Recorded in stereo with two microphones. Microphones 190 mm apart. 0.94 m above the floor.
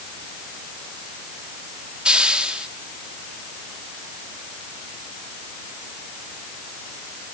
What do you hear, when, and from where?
2.0 s a hiss: 5° right (ahead or behind), 1.8 m